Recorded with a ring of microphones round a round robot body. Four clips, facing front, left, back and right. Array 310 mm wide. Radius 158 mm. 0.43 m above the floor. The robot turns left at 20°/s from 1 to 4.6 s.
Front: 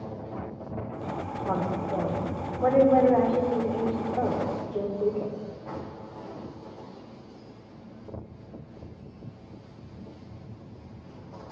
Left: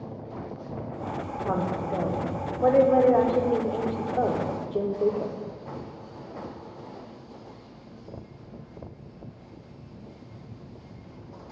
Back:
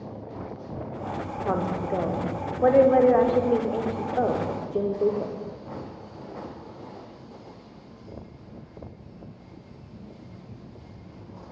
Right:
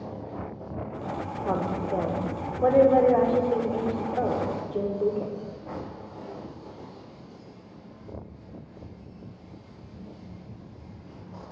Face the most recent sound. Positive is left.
turn(degrees=150)